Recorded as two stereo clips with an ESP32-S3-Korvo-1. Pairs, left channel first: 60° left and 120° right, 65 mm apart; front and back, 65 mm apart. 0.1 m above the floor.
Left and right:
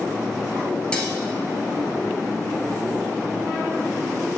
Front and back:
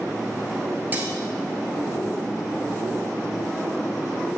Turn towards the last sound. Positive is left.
turn(degrees=130)